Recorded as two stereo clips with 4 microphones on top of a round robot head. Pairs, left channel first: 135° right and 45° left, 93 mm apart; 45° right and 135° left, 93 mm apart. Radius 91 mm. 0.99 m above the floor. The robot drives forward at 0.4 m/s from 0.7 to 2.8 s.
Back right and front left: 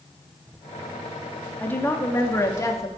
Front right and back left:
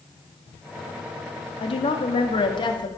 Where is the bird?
I don't hear a bird.